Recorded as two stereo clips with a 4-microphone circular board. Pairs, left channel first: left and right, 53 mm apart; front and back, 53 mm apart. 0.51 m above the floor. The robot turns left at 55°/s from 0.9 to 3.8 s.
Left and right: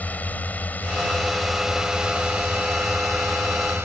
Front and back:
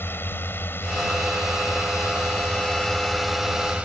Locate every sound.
0.0 s a drone: 35° left; by 3.9 s 120° right